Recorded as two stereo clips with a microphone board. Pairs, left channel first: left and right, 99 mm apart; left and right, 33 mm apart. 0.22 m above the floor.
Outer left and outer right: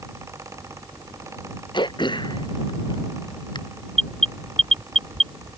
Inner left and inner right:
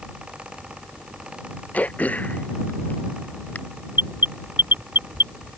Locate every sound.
1.7 s throat clearing: 50° left (ahead or behind)
4.0 s an alarm: 80° right